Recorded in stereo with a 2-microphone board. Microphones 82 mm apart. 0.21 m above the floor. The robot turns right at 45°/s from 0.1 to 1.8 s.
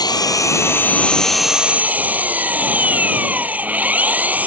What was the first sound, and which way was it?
An engine running, 120° left.